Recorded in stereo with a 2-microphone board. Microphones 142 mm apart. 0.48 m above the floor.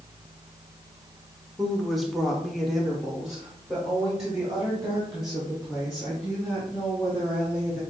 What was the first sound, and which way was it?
A woman speaking, centre (ahead or behind).